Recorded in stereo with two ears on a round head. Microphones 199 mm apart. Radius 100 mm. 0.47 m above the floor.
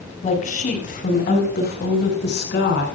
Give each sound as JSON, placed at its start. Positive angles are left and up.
{"t": 0.2, "sound": "a woman speaking", "side_deg": 35, "distance_m": 4.5}